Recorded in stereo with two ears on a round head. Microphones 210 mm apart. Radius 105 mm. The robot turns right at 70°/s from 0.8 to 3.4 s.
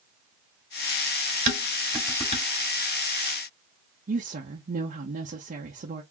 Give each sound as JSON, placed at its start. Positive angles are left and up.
{"t": 1.5, "sound": "dishes clattering", "side_deg": -35, "distance_m": 1.6}
{"t": 4.1, "sound": "a woman speaking", "side_deg": -35, "distance_m": 0.9}